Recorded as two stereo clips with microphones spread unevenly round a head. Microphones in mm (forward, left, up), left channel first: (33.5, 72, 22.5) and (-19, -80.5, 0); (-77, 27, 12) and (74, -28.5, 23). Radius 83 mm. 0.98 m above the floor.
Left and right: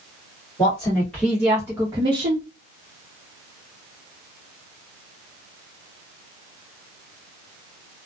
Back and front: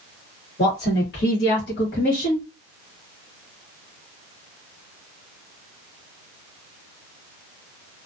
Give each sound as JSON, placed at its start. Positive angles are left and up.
{"t": 0.6, "sound": "a woman speaking", "azimuth_deg": 140, "distance_m": 1.2}